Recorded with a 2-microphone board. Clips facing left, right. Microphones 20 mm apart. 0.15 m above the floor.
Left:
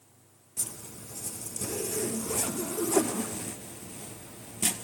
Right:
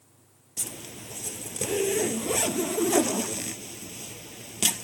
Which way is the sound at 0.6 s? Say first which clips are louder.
Right 3 dB; 75° right (ahead or behind).